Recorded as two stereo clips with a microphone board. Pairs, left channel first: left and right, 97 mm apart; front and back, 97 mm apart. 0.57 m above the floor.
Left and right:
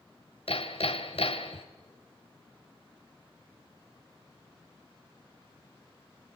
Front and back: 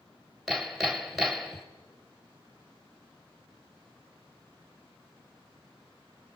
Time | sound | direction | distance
0.5 | hammering | 90° left | 1.3 m